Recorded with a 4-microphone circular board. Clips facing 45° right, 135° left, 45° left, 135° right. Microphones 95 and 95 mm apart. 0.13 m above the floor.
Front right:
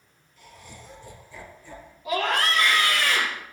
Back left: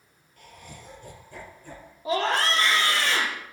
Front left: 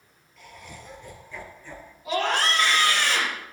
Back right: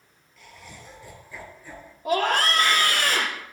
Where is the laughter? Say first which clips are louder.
Even, front left 2 dB; 135° left, 3.5 m; by 1.9 s 145° left, 3 m.